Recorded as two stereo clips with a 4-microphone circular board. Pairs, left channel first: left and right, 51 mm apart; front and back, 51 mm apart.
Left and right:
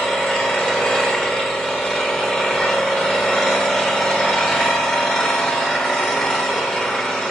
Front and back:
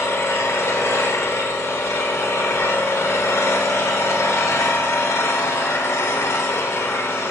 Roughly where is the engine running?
Ahead.